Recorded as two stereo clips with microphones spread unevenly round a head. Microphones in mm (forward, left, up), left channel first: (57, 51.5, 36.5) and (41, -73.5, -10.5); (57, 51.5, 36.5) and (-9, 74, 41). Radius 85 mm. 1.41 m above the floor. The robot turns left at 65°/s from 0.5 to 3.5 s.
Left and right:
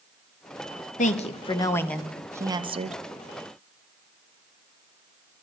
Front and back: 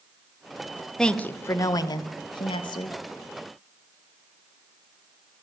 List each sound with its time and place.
1.0 s a woman speaking: 65° left, 1.3 m; by 3.0 s 65° right, 1.3 m